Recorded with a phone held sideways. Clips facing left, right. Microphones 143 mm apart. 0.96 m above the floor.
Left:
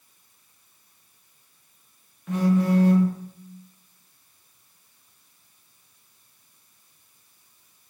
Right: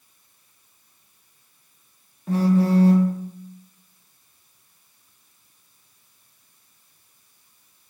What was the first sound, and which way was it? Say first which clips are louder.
A phone buzzing: right 2 dB; 30° right (ahead or behind).